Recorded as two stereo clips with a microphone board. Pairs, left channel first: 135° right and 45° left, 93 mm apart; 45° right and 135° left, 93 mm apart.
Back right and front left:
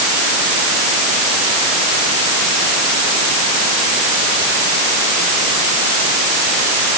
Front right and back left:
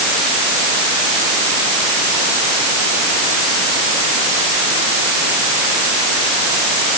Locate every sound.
Only background noise.